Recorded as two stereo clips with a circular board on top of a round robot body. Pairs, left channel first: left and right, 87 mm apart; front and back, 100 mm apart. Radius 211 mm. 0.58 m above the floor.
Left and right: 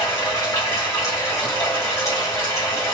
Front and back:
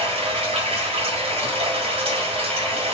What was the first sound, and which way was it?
Running water, 150° left.